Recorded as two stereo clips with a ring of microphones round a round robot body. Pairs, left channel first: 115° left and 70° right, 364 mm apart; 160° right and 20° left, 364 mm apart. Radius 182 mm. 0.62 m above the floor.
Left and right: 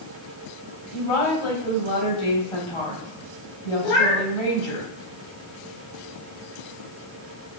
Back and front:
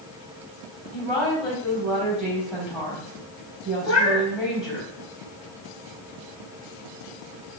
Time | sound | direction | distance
0.9 | a woman speaking | 120° left | 4 m
3.8 | a cat meowing | 145° left | 3 m